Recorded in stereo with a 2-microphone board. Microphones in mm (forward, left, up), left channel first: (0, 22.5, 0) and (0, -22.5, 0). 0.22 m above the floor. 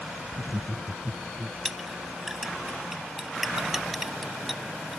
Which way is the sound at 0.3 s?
40° right (ahead or behind).